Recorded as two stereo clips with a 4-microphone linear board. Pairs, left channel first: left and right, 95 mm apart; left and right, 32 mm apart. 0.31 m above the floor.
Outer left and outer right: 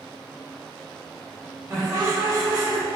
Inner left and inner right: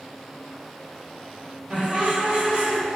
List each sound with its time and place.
1.7 s laughter: 30° right (ahead or behind), 1.2 m